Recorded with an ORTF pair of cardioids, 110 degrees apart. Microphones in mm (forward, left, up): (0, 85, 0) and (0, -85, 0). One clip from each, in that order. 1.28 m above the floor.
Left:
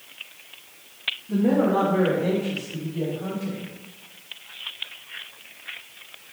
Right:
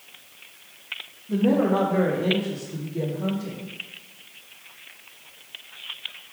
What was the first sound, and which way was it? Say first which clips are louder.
A woman speaking: even; 5° right.